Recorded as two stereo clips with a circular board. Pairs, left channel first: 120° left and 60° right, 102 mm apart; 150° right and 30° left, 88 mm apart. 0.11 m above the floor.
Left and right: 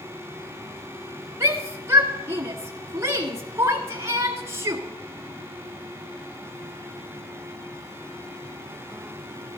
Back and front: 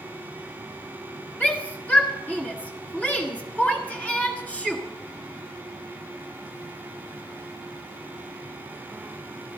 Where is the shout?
90° right, 1.8 m.